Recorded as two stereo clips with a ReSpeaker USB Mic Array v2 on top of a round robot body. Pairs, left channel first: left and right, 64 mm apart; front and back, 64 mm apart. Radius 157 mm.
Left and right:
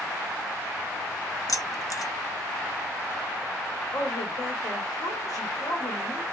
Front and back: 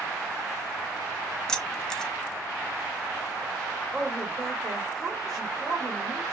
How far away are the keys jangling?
About 0.7 m.